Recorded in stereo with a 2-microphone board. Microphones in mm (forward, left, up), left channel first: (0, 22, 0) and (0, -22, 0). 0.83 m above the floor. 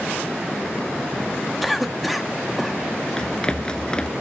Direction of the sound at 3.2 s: 20° left (ahead or behind).